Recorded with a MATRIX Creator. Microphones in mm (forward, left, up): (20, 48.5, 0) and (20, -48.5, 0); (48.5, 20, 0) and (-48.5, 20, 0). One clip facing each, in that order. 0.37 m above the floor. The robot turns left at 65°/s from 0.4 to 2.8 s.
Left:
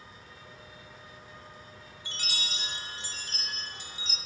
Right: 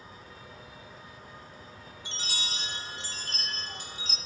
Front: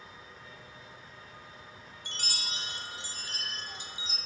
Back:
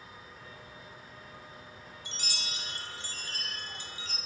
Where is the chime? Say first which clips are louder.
Right 1 dB, front 2 dB; 20° right, 0.9 m; by 4.2 s 70° right, 0.9 m.